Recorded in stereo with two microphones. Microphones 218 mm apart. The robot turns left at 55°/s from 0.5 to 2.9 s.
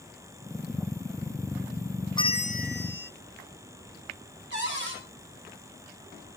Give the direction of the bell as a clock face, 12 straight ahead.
7 o'clock.